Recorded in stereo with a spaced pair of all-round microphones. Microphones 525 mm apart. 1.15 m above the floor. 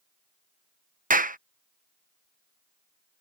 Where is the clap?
15° right (ahead or behind).